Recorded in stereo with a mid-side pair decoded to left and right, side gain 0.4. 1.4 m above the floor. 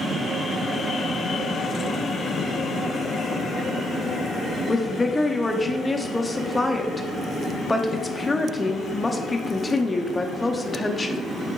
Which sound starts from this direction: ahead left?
A woman speaking, at 4.7 s.